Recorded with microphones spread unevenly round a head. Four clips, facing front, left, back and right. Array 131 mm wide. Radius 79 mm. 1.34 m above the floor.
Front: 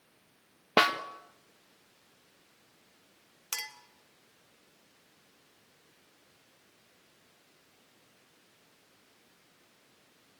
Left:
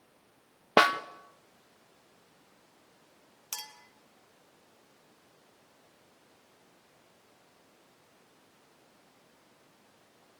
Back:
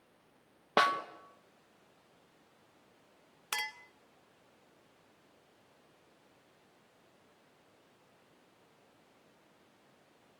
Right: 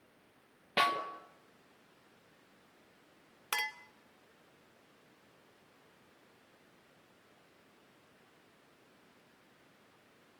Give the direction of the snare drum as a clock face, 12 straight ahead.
10 o'clock.